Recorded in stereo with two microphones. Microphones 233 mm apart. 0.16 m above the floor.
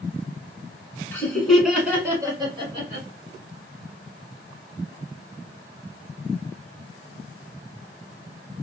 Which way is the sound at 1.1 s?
5° left (ahead or behind).